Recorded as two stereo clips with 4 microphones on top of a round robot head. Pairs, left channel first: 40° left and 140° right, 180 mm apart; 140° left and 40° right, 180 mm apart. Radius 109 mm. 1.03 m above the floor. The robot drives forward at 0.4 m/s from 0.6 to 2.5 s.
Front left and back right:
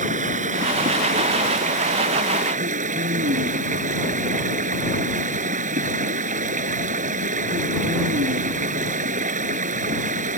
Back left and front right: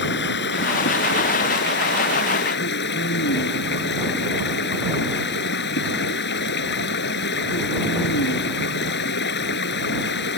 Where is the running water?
170° left.